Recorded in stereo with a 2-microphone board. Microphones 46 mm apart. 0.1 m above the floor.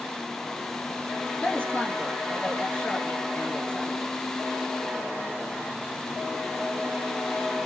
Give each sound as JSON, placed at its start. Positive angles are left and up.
{"t": 1.4, "sound": "a woman speaking", "side_deg": 35, "distance_m": 1.7}